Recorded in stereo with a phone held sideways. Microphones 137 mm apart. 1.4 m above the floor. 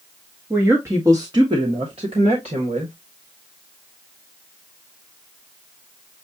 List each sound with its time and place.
0.5 s a woman speaking: 15° right (ahead or behind), 1.3 m; by 2.9 s 60° right (ahead or behind), 1.8 m